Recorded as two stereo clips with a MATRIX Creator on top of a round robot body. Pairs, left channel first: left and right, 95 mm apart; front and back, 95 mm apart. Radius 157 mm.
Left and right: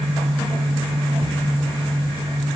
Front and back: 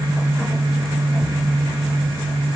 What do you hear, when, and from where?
Only background noise.